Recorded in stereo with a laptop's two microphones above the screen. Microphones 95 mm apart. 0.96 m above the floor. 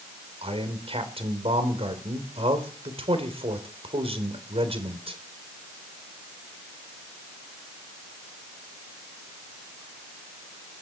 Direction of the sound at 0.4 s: 80° right.